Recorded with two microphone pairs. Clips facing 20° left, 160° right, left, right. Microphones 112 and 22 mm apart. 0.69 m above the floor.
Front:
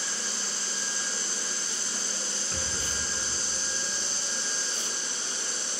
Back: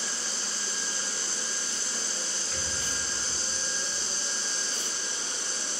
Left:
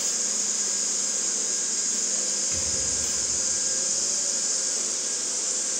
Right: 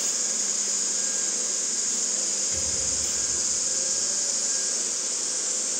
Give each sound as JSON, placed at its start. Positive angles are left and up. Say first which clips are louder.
{"t": 0.0, "sound": "an insect", "louder": "even, even", "azimuth_deg": 100, "distance_m": 6.0}
{"t": 2.5, "sound": "a rattle", "louder": "front 1 dB, even", "azimuth_deg": 75, "distance_m": 4.5}